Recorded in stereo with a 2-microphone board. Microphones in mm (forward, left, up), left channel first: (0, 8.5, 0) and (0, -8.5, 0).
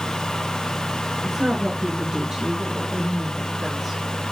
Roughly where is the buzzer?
No buzzer in this recording.